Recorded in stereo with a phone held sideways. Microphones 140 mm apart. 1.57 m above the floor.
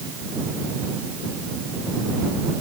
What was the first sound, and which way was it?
Only background noise.